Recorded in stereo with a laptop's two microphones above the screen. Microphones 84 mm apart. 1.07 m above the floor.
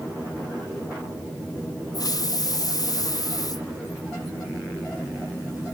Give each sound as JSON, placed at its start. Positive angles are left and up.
{"t": 1.9, "sound": "a hiss", "side_deg": 50}